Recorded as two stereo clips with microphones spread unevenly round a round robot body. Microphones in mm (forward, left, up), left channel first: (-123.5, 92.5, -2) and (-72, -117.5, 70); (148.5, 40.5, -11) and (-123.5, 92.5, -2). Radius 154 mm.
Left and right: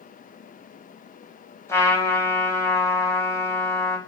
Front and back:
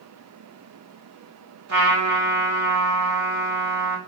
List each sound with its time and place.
1.7 s a trumpet: 165° left, 1.8 m